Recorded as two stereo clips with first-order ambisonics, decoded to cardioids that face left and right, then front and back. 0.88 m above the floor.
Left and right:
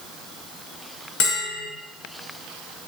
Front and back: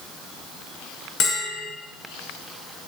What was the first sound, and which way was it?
A bell, 50° left.